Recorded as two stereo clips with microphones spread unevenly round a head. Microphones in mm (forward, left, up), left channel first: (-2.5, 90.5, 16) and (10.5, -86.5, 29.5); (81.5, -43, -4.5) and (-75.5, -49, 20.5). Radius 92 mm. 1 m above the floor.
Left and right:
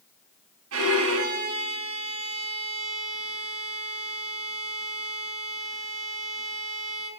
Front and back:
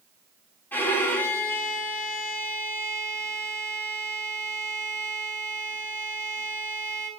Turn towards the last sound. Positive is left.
turn(degrees=-75)